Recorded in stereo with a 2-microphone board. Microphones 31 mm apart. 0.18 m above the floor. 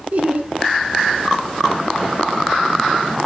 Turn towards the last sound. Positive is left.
turn(degrees=-45)  # may be behind; listen again after turning